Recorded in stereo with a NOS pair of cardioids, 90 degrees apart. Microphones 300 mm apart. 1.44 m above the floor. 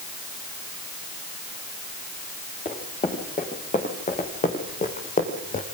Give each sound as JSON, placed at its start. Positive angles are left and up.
{"t": 2.6, "sound": "running footsteps", "azimuth_deg": 25, "distance_m": 7.0}